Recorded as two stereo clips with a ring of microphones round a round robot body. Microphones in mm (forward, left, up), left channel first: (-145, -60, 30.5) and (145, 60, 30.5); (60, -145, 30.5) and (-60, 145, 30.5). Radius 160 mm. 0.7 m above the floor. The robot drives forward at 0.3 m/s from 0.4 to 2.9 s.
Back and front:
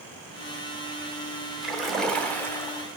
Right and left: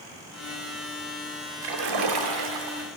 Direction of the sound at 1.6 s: 110° left.